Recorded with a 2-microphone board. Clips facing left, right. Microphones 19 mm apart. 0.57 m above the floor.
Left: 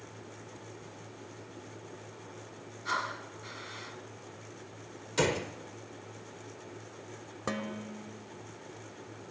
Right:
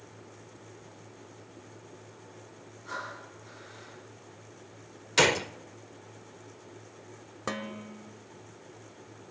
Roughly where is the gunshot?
Right.